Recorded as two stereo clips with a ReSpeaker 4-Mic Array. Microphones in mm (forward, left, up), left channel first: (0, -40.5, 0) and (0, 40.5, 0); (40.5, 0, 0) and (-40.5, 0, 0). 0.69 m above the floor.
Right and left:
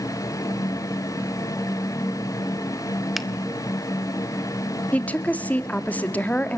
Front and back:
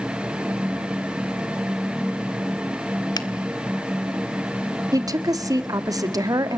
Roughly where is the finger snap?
Ahead.